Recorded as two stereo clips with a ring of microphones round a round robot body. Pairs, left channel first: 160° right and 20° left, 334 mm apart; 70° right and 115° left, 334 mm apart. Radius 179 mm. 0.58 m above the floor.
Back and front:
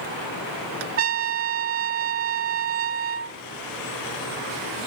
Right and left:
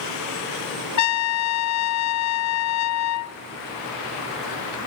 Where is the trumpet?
30° right, 1.3 m.